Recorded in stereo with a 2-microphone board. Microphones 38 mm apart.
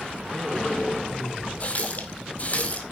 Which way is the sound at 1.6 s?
40° left (ahead or behind).